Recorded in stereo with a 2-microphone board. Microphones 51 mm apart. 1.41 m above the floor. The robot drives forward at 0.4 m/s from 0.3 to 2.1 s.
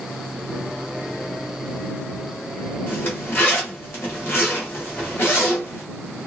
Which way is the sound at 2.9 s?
45° left (ahead or behind).